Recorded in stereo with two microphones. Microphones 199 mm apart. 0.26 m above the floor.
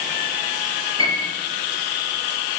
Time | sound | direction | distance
1.0 | a piano | 25° right (ahead or behind) | 6 m